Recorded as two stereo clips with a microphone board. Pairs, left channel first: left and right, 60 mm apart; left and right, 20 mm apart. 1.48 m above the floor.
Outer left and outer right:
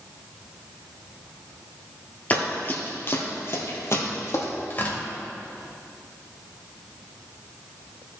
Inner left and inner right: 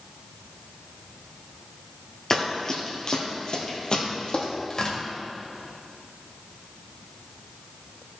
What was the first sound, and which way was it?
Running footsteps, 25° left (ahead or behind).